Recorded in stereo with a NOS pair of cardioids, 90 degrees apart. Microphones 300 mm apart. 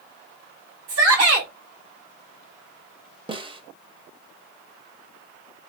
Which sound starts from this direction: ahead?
A snare drum, at 3.3 s.